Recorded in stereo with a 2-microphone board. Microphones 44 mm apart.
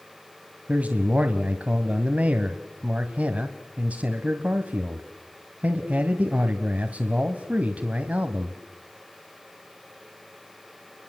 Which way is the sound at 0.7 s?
35° right (ahead or behind).